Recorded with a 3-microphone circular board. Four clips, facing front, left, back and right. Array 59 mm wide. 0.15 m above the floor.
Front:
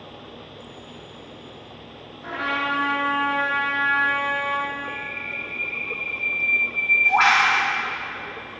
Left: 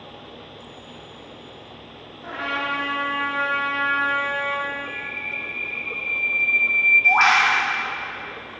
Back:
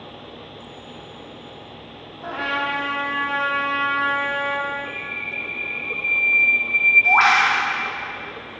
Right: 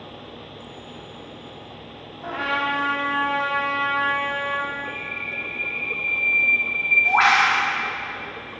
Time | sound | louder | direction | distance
2.2 | a trumpet | right 2 dB, back 1 dB | 160° right | 3.5 m
4.8 | a bird | even, back 1 dB | 165° left | 2.5 m